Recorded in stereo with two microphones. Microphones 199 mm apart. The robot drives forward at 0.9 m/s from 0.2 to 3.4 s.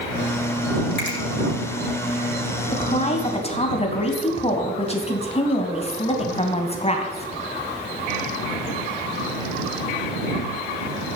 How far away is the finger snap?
About 5 m.